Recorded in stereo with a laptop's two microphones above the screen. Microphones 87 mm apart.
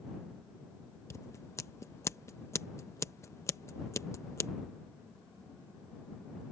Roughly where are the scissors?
Left.